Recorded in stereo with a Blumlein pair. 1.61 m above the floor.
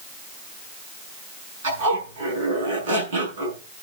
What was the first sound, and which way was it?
A zipper, 60° right.